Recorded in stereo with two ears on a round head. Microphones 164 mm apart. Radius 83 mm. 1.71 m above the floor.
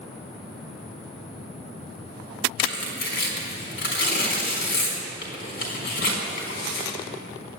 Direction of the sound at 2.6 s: 65° left (ahead or behind).